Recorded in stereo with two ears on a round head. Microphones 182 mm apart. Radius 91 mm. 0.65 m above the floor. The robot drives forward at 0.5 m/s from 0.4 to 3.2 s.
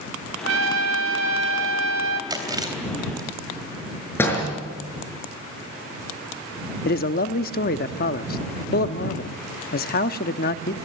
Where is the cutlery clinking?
No cutlery clinking in this recording.